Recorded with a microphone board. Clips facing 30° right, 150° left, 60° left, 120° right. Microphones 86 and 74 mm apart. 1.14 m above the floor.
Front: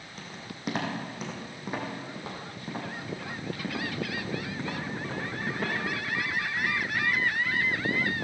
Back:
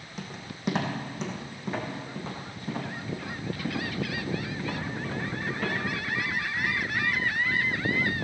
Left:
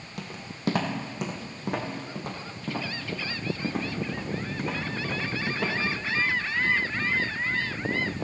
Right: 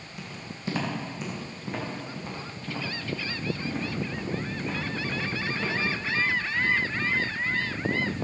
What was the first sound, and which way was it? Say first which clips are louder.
Footsteps: back 3 dB, left 1 dB; 65° left.